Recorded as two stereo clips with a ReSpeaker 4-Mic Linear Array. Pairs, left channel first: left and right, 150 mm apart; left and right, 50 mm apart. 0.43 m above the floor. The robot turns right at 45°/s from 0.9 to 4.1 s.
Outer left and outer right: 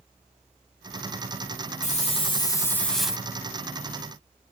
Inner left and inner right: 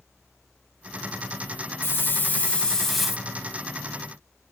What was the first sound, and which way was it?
A hiss, 125° left.